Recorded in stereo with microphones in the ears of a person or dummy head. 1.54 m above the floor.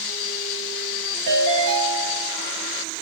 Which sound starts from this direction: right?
A ringtone, at 1.3 s.